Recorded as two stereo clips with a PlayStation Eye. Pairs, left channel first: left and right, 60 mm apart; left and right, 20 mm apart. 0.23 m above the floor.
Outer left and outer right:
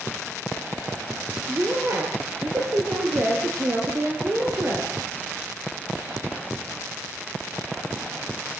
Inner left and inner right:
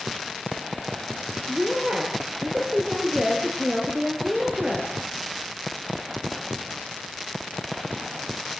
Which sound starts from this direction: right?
A woman speaking, at 1.5 s.